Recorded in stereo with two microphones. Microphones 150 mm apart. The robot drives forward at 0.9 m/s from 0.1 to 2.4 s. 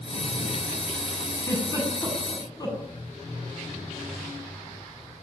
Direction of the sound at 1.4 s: 25° left (ahead or behind).